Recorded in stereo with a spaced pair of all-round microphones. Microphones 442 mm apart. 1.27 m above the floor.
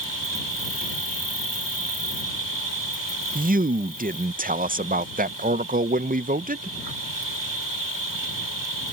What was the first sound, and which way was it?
An insect, 70° left (ahead or behind).